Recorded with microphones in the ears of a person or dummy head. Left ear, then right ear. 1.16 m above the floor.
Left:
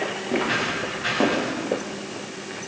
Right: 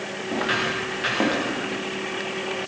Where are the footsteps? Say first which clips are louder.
Right 1 dB; 45° right (ahead or behind), 8.5 m.